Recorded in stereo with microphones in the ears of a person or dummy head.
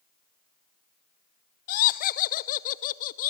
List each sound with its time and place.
1.7 s laughter: 50° left (ahead or behind), 0.7 m